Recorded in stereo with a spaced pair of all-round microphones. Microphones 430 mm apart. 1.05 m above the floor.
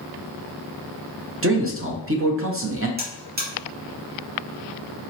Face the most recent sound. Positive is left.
turn(degrees=-20)  # may be behind; listen again after turning